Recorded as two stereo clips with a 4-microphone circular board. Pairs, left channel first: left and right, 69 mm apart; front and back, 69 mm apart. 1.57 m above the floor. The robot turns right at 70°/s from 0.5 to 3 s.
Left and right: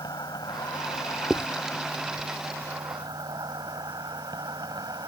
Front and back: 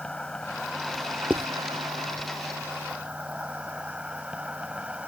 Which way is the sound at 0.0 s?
80° left.